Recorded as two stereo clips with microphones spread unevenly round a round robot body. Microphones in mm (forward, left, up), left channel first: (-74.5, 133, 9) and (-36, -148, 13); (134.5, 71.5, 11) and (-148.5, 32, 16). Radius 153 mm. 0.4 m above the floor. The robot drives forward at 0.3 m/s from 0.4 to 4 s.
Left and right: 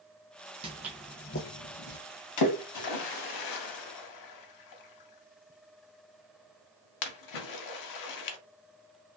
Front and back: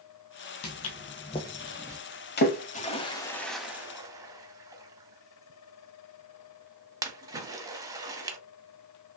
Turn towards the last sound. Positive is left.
turn(degrees=110)